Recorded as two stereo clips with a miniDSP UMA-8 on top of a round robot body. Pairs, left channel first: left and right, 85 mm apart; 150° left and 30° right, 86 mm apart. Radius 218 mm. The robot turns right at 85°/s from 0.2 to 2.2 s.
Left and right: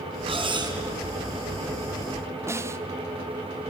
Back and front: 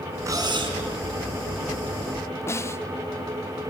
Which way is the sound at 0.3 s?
85° right.